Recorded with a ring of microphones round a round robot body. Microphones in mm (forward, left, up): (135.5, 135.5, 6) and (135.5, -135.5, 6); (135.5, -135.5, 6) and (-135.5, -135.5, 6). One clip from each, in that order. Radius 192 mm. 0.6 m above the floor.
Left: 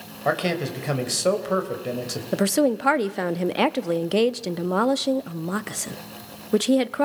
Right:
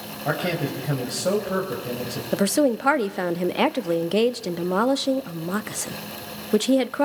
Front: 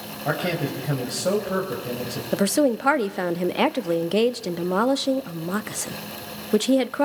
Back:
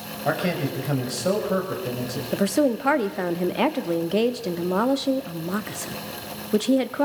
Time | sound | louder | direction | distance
0.2 | a man speaking | left 2 dB, even | 105° left | 3 m
2.3 | a woman speaking | even, front 1 dB | 15° left | 0.5 m